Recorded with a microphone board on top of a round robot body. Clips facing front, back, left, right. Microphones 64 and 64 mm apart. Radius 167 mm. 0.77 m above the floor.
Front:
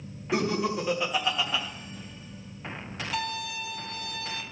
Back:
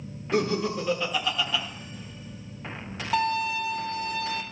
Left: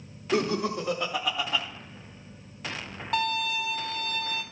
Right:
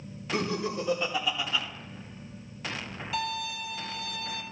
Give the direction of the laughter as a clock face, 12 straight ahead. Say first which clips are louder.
Back 1 dB, left 4 dB; 9 o'clock.